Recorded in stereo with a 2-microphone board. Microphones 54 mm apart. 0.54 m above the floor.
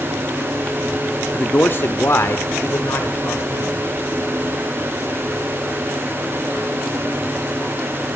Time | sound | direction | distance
1.3 | a man speaking | 30° left (ahead or behind) | 0.7 m